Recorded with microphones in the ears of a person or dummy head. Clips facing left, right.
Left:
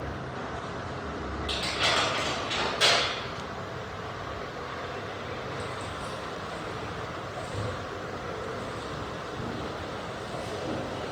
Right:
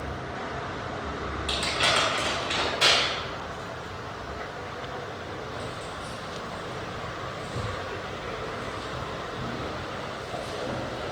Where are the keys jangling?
40° left (ahead or behind), 1.1 m.